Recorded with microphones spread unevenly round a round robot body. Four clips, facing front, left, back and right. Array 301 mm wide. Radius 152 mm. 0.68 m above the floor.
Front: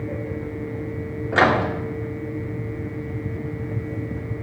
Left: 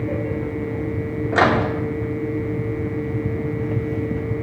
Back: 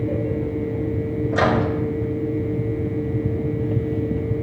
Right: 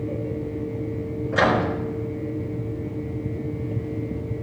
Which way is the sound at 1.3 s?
40° left.